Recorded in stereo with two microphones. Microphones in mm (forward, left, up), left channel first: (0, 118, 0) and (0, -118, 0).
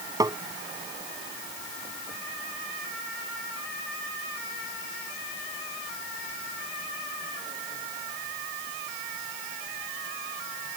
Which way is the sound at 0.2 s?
15° right (ahead or behind).